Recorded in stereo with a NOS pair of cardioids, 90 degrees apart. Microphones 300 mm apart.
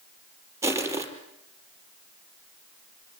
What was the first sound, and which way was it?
Crushing, 10° right.